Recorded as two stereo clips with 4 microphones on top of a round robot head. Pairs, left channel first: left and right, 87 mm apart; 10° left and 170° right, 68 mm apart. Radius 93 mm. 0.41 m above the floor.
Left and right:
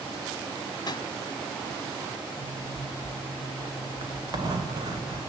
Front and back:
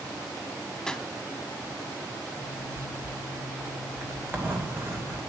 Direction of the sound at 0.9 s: 90° left.